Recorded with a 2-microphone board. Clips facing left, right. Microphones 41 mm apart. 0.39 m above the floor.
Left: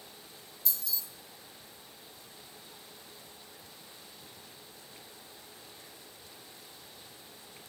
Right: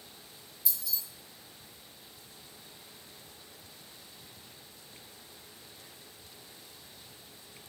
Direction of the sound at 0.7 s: 5° right (ahead or behind).